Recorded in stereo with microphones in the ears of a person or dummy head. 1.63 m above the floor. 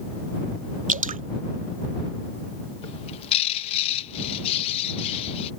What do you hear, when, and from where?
0.9 s dripping: 40° right (ahead or behind)
2.8 s a bird: 30° left (ahead or behind)